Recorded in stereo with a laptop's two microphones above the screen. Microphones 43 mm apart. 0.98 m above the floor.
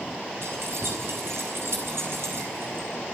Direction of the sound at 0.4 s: 75° right (ahead or behind).